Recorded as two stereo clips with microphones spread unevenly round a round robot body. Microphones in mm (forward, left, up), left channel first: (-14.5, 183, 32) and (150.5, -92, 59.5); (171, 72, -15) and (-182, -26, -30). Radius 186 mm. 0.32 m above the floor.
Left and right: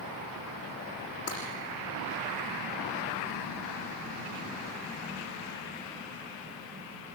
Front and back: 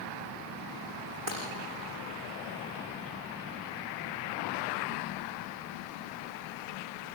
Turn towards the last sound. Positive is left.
turn(degrees=-170)